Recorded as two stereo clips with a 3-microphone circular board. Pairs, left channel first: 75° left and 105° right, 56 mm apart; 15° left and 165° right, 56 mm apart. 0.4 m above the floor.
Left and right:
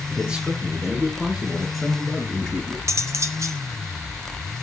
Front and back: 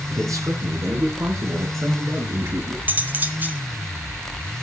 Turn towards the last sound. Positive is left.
turn(degrees=-110)